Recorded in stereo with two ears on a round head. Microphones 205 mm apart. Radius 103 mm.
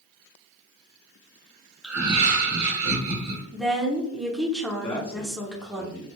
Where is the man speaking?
25° left (ahead or behind), 0.7 m.